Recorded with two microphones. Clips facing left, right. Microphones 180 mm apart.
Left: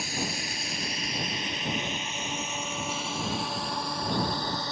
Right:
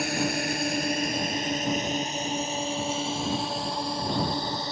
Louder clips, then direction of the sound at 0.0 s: Right 7 dB; 65° right (ahead or behind).